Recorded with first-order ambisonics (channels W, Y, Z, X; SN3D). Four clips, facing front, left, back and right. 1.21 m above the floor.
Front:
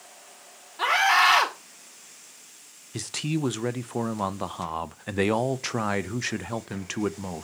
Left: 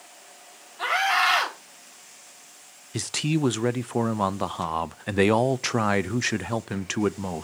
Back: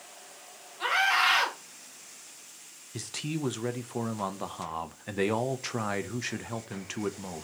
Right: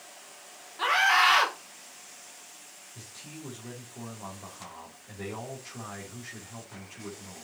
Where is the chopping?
I don't hear chopping.